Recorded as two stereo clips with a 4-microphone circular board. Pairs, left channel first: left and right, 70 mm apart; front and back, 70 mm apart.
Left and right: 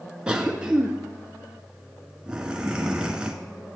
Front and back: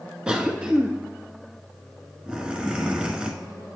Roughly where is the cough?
Behind right.